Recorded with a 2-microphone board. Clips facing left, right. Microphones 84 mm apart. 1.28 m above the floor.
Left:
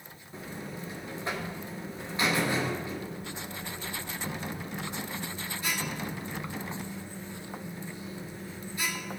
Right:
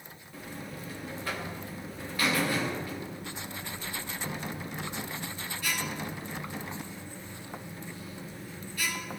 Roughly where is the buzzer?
Left.